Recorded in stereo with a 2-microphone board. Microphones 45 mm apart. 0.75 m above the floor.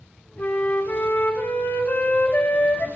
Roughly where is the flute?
Left.